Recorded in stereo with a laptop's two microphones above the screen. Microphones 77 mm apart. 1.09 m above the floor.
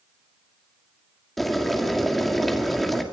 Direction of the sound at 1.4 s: Centre (ahead or behind).